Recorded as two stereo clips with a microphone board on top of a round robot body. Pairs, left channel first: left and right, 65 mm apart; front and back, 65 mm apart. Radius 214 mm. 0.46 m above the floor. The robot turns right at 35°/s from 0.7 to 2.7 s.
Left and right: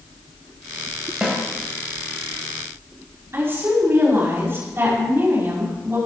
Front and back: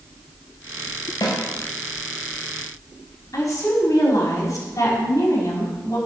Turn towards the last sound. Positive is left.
turn(degrees=-35)